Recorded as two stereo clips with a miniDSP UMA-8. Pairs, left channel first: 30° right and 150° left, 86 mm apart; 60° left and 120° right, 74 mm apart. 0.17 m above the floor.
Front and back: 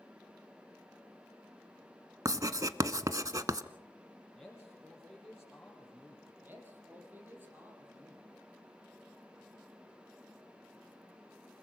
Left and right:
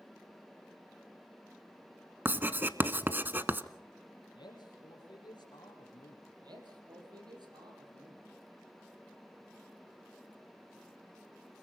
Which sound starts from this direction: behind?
Writing, at 2.2 s.